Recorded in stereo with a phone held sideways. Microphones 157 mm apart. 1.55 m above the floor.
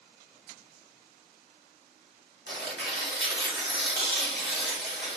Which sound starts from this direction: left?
Tearing paper, at 2.5 s.